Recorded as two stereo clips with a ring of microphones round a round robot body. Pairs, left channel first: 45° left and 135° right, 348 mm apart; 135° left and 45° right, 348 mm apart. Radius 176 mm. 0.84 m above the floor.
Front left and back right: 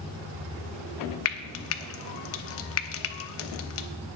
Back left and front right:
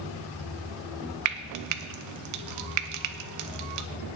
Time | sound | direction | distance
1.2 | frying | 5° right | 0.7 m